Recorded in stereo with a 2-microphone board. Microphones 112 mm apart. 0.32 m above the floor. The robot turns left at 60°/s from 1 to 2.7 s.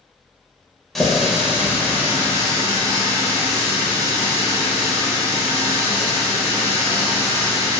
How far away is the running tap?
About 0.6 m.